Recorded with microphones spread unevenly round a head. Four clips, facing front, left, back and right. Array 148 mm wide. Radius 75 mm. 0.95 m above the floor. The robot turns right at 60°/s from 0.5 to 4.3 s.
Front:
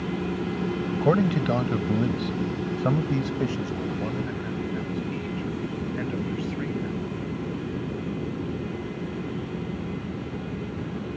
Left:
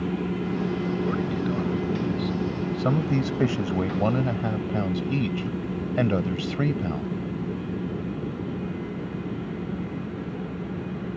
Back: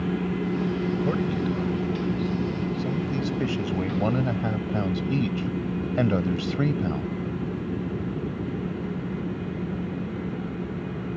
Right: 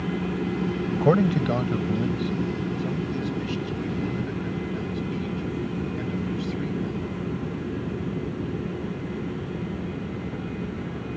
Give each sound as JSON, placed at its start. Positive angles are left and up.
{"t": 0.9, "sound": "a man speaking", "azimuth_deg": -65}